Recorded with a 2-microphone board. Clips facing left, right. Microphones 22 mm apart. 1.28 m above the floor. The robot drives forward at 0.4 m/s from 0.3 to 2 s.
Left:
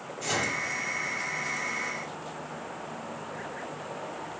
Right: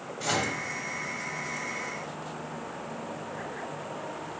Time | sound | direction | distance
0.2 | a microwave | 60° right (ahead or behind) | 1.6 m